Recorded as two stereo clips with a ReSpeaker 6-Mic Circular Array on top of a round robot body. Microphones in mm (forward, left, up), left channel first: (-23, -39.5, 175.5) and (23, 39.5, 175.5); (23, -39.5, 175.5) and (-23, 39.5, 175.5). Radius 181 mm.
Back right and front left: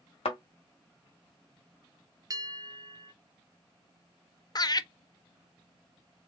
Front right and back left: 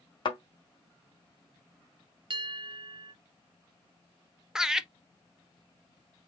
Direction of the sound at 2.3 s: 105° left.